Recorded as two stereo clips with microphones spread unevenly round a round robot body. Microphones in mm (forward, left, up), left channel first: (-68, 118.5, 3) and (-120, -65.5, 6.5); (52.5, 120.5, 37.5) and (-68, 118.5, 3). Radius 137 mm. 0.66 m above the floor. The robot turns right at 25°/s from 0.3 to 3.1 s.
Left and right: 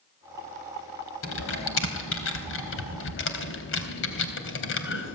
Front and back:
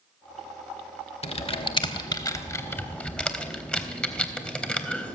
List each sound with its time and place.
1.2 s typing on a keyboard: 40° left, 3.5 m; by 5.2 s 85° left, 3.5 m